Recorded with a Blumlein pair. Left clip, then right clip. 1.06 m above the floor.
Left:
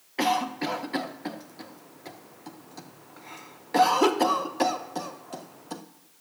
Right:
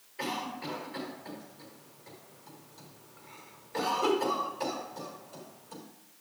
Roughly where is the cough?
Ahead left.